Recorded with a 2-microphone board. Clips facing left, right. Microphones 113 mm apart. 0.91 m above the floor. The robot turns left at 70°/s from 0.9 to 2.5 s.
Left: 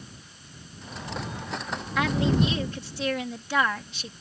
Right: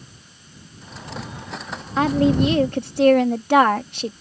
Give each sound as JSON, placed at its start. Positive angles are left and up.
{"t": 2.0, "sound": "a woman speaking", "azimuth_deg": -40}